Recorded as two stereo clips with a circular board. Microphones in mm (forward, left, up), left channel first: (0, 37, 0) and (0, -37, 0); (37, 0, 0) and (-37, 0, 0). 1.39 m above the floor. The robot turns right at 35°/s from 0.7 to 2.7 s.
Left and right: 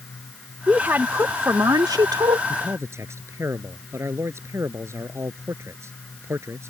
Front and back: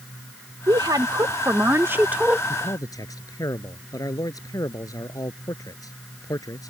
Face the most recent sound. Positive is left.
turn(degrees=-40)